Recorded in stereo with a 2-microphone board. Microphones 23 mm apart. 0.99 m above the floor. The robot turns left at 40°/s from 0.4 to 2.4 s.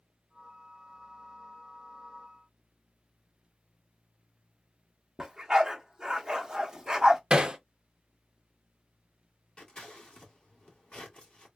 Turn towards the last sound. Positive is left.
turn(degrees=45)  # may be behind; listen again after turning